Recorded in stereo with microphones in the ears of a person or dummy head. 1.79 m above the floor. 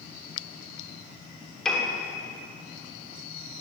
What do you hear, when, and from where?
1.6 s a piano: 5° left (ahead or behind), 7 m